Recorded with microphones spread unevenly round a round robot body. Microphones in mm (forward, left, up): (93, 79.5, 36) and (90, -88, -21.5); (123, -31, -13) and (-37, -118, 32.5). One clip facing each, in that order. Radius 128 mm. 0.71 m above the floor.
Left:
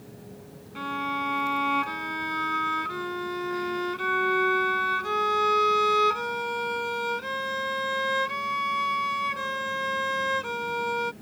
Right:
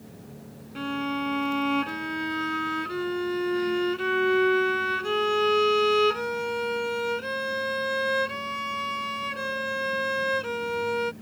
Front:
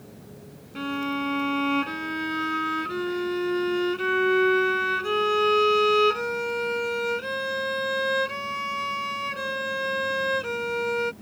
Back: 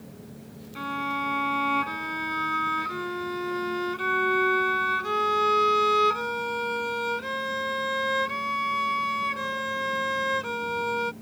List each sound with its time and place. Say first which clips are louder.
0.8 s a violin: right 4 dB, front 5 dB; 30° right